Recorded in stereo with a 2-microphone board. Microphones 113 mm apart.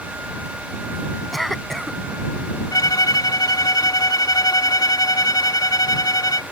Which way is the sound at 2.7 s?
35° left (ahead or behind).